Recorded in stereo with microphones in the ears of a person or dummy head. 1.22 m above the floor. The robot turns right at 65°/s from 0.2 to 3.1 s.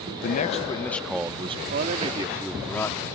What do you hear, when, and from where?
0.2 s a man speaking: 125° left; by 1.6 s 145° right
1.7 s a man speaking: 60° right; by 3.2 s 35° left